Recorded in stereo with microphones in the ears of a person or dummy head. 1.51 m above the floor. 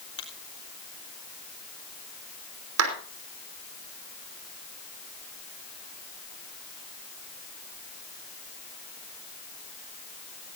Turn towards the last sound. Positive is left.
turn(degrees=-80)